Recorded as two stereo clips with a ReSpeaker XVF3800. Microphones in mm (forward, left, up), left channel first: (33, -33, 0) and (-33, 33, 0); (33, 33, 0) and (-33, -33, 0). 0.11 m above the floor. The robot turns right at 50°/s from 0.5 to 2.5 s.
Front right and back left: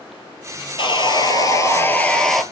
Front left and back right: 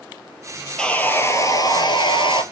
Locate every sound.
0.8 s sawing: 35° right, 0.8 m; by 2.4 s 45° left, 0.8 m